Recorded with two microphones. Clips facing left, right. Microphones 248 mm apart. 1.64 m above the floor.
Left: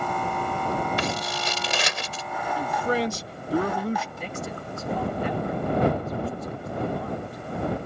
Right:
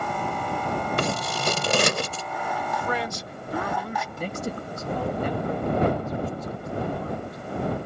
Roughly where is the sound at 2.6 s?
Left.